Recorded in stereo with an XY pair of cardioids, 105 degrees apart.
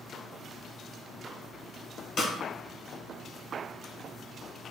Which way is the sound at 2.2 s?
45° left.